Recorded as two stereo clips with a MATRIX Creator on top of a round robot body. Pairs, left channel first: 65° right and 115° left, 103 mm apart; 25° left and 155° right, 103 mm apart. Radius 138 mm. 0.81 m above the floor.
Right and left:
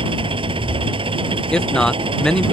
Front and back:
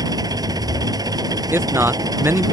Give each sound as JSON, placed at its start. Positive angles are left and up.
{"t": 0.0, "sound": "an engine running", "azimuth_deg": 150}
{"t": 1.5, "sound": "a man speaking", "azimuth_deg": -140}